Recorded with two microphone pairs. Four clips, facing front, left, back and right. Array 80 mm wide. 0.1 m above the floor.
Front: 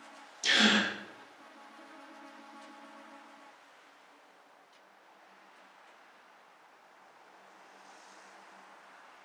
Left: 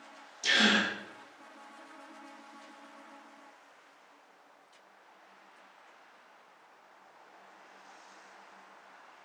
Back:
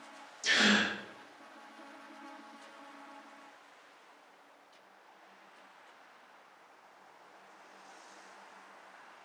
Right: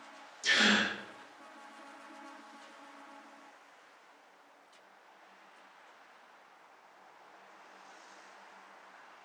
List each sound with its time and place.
0.4 s a gasp: 35° left, 0.9 m